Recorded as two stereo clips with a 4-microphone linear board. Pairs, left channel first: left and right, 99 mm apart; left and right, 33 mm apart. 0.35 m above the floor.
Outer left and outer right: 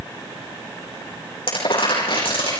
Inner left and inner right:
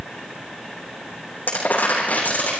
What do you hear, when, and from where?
1.5 s crumpling: 80° left, 8 m